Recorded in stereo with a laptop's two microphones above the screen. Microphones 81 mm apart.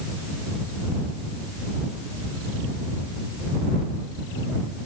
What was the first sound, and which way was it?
Only background noise.